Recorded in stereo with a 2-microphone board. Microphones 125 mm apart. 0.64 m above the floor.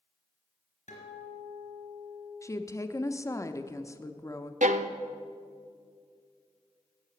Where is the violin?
80° right, 0.6 m.